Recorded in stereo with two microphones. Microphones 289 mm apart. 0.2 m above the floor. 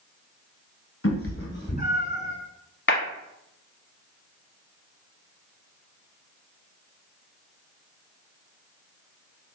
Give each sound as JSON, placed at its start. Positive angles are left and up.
{"t": 1.0, "sound": "a cat meowing", "side_deg": 50, "distance_m": 0.9}
{"t": 2.9, "sound": "a clap", "side_deg": 40, "distance_m": 1.1}